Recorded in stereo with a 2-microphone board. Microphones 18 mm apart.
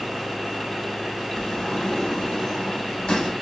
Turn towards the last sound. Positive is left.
turn(degrees=70)  # may be behind; listen again after turning